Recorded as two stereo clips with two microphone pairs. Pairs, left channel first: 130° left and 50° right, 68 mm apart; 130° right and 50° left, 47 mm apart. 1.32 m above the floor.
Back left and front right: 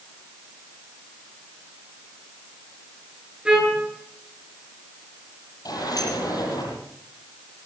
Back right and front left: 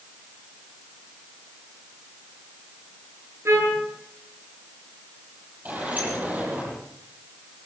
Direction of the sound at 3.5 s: 25° left.